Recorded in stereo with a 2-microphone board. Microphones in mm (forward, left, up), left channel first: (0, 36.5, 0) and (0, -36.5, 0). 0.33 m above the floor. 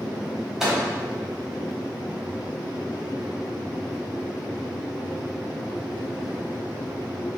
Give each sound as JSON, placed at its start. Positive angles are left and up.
{"t": 0.6, "sound": "a microwave", "side_deg": -5, "distance_m": 1.4}